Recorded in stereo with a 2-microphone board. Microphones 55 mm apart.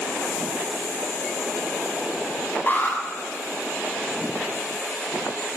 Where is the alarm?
30° left (ahead or behind), 9 m.